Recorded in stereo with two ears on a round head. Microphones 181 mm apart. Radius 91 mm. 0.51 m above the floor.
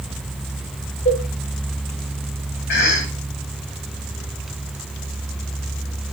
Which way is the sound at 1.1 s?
45° left (ahead or behind).